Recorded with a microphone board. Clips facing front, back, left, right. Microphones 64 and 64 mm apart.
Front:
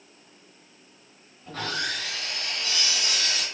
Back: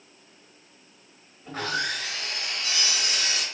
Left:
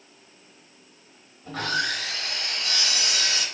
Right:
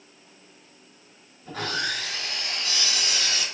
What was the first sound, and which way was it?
Sawing, 105° left.